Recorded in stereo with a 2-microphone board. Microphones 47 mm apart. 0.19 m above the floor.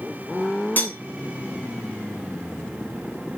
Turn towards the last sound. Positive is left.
turn(degrees=40)  # may be behind; listen again after turning